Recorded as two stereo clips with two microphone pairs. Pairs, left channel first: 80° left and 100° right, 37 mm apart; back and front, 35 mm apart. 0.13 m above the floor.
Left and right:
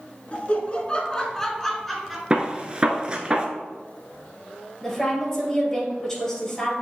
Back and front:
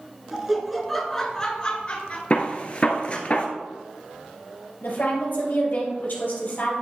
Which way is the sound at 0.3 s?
65° left.